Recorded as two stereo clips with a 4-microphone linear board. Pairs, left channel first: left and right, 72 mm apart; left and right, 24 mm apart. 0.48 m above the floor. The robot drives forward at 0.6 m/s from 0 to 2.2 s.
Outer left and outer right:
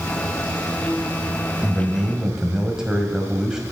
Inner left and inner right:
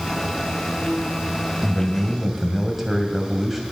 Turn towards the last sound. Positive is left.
turn(degrees=-10)  # may be behind; listen again after turning